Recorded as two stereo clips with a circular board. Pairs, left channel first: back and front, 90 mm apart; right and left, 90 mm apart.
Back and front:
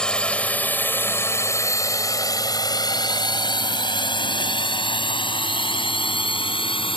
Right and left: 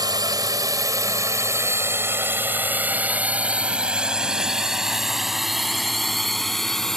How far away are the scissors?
No scissors in this recording.